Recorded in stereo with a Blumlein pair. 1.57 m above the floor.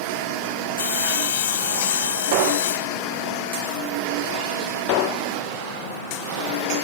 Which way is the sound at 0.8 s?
60° left.